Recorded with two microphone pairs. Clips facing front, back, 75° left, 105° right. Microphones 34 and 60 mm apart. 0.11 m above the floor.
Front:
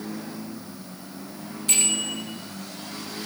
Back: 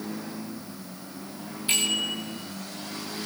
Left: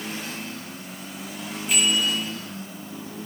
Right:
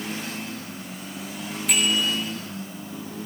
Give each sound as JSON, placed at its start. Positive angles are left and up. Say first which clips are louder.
{"t": 1.7, "sound": "a bicycle bell", "louder": "back 1 dB, even", "azimuth_deg": -110, "distance_m": 7.5}